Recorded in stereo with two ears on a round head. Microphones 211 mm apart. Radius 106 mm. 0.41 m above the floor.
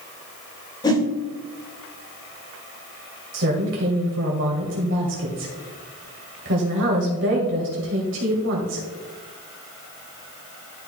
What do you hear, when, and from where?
0.8 s a whoosh: 20° left (ahead or behind), 1.4 m
3.3 s a woman speaking: 60° right (ahead or behind), 2 m